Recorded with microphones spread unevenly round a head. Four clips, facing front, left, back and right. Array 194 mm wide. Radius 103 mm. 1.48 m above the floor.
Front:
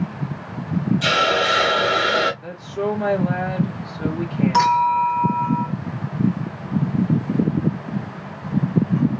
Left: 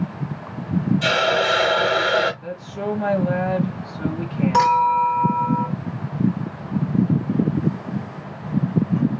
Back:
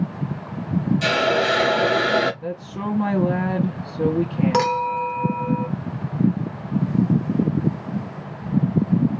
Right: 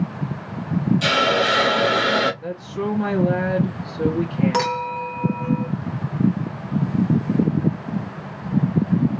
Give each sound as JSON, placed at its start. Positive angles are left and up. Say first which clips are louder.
{"t": 1.0, "sound": "a hiss", "louder": "even, even", "azimuth_deg": -140, "distance_m": 1.3}
{"t": 2.4, "sound": "a woman speaking", "louder": "right 1 dB, front 3 dB", "azimuth_deg": -160, "distance_m": 2.0}
{"t": 4.5, "sound": "a clink", "louder": "left 7 dB, front 6 dB", "azimuth_deg": -155, "distance_m": 1.1}